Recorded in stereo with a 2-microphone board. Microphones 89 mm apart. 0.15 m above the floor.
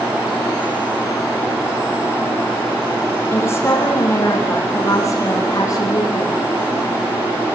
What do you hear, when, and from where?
3.3 s a woman speaking: 30° left (ahead or behind), 5.5 m; by 6.4 s 45° left (ahead or behind), 5.5 m